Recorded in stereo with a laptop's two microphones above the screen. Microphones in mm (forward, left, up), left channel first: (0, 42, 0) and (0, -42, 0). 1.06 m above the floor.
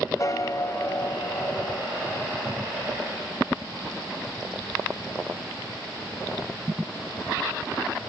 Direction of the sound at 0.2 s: 40° left (ahead or behind).